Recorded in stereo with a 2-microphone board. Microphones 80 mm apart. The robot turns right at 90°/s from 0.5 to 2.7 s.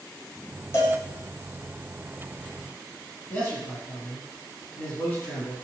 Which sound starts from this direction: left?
A cowbell, at 0.7 s.